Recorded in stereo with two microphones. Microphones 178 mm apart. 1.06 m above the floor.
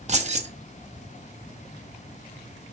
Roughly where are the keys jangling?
Right.